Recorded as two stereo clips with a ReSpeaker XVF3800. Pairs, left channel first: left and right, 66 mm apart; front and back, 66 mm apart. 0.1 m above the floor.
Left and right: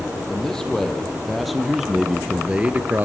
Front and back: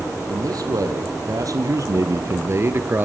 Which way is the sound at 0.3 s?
170° left.